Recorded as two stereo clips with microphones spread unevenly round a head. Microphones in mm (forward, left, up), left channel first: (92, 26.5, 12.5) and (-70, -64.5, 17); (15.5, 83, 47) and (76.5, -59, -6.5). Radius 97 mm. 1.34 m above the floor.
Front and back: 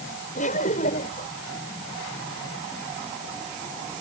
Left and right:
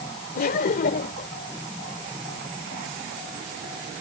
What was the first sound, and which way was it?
Laughter, 85° left.